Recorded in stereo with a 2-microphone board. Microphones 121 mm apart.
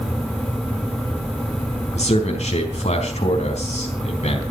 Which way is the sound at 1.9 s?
65° left (ahead or behind).